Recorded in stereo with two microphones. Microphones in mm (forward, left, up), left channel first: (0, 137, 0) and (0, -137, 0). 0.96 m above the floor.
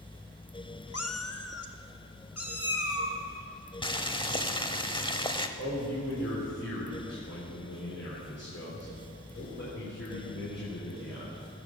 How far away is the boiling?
About 0.8 m.